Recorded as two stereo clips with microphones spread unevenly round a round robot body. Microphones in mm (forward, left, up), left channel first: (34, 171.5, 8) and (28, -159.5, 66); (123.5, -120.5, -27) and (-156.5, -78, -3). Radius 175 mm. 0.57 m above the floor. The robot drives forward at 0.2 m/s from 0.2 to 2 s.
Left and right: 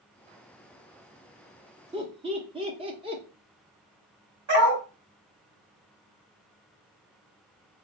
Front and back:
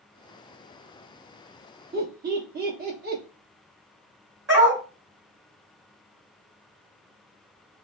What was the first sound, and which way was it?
Laughter, 165° right.